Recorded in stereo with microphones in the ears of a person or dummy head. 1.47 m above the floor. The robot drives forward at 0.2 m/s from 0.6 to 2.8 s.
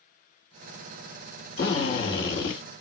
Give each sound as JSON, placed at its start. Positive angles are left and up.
{"t": 1.6, "sound": "a drill", "side_deg": 60, "distance_m": 2.5}